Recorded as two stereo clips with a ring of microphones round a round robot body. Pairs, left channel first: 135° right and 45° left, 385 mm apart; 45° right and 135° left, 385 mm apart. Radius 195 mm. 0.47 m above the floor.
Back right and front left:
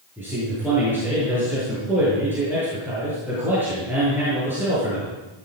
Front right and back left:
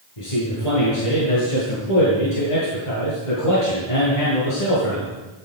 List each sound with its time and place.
0.2 s a man speaking: 40° right, 8.5 m